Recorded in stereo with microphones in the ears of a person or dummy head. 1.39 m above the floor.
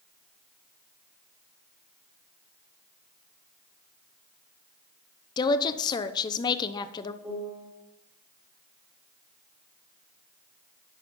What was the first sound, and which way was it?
A woman speaking, 20° left (ahead or behind).